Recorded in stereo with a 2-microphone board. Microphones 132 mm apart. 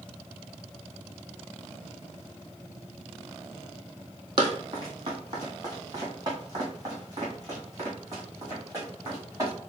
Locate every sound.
4.4 s running footsteps: 40° right (ahead or behind), 1.6 m; by 9.5 s 25° right (ahead or behind), 4 m